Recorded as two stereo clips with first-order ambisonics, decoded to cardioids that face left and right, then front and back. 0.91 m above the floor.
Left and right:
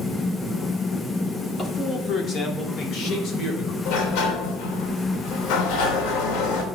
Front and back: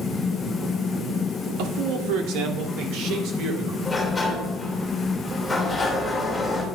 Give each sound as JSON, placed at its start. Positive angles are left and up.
{"t": 1.6, "sound": "a man speaking", "azimuth_deg": 165, "distance_m": 2.5}
{"t": 3.9, "sound": "a sliding door", "azimuth_deg": 85, "distance_m": 3.0}